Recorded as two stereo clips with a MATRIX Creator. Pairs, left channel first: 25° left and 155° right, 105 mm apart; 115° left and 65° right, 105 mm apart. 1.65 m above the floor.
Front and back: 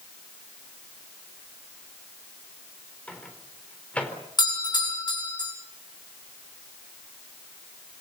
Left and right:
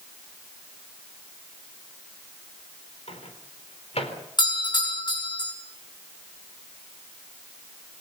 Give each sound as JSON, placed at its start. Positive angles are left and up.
{"t": 3.1, "sound": "a microwave", "azimuth_deg": 100, "distance_m": 4.0}
{"t": 4.4, "sound": "a doorbell", "azimuth_deg": 70, "distance_m": 9.0}